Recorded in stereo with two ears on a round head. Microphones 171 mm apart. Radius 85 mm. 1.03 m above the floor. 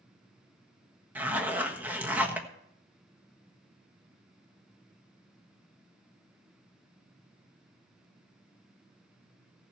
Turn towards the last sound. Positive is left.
turn(degrees=-10)  # may be behind; listen again after turning